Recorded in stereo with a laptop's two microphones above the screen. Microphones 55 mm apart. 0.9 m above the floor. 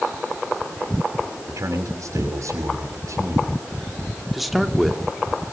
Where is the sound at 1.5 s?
65° right (ahead or behind), 6.5 m.